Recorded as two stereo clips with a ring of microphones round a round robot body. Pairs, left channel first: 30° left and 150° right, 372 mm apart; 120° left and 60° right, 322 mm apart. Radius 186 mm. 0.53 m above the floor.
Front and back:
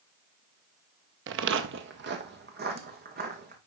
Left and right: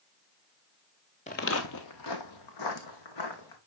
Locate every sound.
1.3 s footsteps: straight behind, 0.5 m; by 3.6 s 145° left, 2.5 m